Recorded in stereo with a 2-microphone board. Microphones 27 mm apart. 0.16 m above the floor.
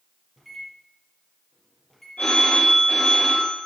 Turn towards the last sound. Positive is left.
turn(degrees=80)